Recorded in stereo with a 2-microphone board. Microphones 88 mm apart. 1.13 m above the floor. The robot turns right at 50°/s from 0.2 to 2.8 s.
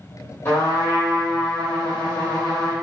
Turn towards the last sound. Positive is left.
turn(degrees=150)